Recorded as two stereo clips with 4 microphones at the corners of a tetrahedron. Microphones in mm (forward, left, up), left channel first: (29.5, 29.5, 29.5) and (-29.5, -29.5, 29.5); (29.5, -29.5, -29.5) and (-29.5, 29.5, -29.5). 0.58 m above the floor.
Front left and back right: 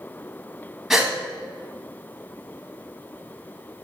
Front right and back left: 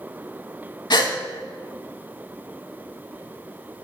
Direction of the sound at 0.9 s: 55° right.